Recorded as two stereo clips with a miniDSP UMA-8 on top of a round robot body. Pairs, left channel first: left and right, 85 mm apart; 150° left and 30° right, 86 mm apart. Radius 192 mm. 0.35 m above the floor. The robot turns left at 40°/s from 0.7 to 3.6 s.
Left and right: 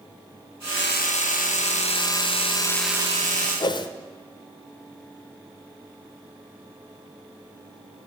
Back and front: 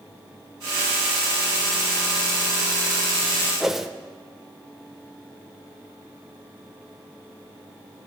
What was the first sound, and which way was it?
A whoosh, 55° left.